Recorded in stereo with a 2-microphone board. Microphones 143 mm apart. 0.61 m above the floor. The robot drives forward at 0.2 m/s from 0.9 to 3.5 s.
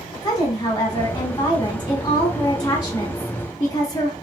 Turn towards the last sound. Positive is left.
turn(degrees=25)  # may be behind; listen again after turning